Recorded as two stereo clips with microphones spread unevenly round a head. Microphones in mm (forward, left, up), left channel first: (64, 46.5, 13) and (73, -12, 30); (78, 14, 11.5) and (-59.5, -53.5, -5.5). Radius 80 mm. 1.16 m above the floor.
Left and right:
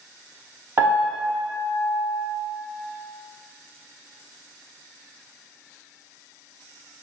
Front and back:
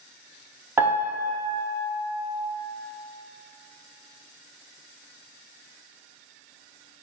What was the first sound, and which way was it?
A piano, 75° right.